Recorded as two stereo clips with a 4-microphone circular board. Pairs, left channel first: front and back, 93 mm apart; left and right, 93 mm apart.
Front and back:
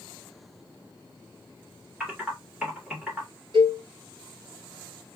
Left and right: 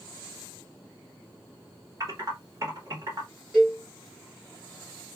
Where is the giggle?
No giggle in this recording.